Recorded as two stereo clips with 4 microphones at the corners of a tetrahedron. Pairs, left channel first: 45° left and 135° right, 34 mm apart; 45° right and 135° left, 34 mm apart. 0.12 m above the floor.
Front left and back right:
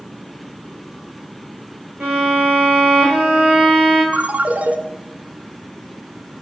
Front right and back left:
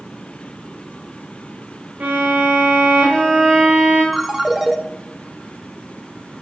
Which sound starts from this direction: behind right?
A ringtone, at 4.1 s.